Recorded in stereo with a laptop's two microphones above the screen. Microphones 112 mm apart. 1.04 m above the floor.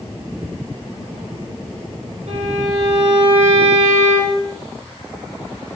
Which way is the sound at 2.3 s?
80° right.